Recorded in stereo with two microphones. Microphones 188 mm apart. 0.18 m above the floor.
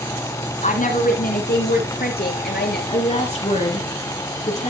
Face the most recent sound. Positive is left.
turn(degrees=35)  # may be behind; listen again after turning